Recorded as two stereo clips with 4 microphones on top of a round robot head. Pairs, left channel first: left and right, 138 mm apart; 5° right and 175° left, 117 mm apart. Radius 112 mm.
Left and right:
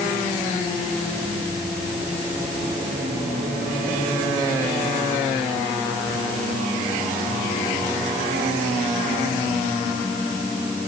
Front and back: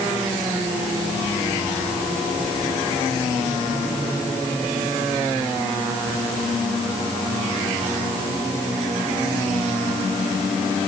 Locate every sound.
Only background noise.